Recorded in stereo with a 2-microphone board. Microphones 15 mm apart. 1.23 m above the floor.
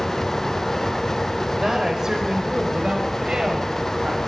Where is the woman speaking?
30° right (ahead or behind), 5 m; by 4.2 s 70° right (ahead or behind), 6.5 m.